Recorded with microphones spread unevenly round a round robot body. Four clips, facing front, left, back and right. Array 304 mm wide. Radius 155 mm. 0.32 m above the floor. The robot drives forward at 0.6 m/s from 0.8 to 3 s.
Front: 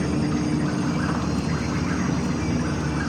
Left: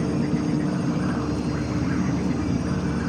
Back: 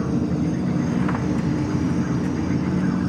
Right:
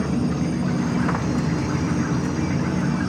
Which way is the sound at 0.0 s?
150° right.